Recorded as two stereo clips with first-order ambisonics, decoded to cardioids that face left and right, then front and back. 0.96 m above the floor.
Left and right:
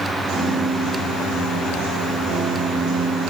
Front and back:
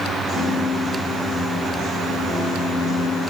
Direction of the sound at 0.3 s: 70° right.